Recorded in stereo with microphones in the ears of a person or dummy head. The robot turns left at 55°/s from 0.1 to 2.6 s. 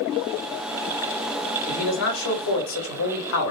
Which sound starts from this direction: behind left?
A man speaking, at 1.7 s.